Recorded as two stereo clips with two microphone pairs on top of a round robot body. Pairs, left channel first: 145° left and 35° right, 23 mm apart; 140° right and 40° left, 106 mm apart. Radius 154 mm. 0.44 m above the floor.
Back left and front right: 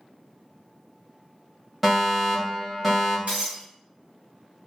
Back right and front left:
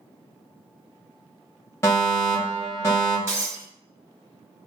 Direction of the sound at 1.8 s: 115° right.